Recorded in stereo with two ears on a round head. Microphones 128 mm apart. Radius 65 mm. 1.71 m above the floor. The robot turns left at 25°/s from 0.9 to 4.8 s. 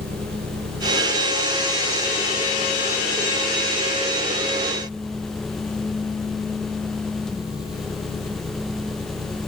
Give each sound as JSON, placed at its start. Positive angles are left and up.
{"t": 0.0, "sound": "an engine running", "azimuth_deg": -80}